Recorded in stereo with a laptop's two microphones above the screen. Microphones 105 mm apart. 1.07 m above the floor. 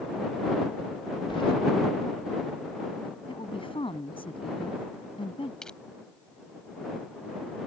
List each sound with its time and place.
1.3 s keys jangling: 55° left (ahead or behind)
3.3 s a woman speaking: 55° left (ahead or behind)
5.6 s crushing: 5° left (ahead or behind)